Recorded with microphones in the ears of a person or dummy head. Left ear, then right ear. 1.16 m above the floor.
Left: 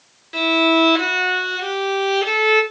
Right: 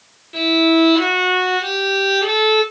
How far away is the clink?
No clink in this recording.